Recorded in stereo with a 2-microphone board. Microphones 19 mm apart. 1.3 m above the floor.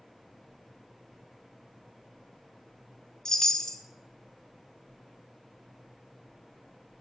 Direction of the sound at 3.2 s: 30° left (ahead or behind).